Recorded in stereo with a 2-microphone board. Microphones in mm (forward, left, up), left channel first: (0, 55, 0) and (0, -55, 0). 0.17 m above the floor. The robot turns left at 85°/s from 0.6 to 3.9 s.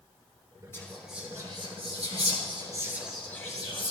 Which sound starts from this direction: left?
Whispering, at 0.7 s.